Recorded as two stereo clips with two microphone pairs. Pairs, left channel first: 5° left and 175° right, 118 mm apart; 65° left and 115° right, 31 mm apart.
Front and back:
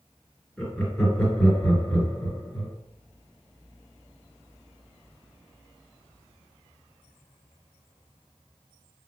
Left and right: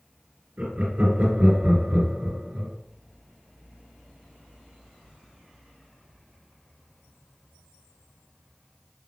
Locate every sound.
0.6 s laughter: 80° right, 2 m